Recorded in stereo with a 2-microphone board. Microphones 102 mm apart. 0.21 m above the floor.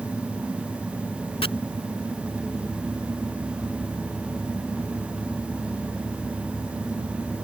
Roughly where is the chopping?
Left.